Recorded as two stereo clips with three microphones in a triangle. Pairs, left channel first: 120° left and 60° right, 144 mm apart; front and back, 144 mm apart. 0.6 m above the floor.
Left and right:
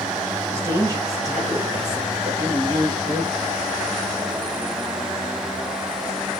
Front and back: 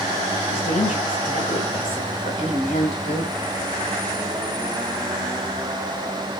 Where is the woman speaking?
5° left, 3 m; by 3.5 s 20° right, 1.8 m.